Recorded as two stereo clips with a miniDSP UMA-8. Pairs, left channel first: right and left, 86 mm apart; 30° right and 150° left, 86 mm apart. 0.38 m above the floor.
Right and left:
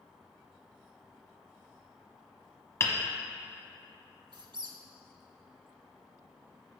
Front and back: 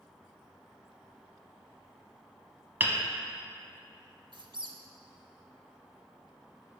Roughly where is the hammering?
Behind right.